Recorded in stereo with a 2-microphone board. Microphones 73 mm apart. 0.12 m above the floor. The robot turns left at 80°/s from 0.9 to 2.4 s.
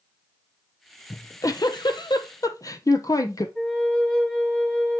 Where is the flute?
10° left (ahead or behind), 1.9 m.